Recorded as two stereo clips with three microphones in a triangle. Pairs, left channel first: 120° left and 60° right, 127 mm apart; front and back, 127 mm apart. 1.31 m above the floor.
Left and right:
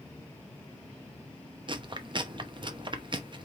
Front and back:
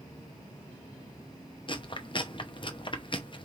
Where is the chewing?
30° right, 0.7 m.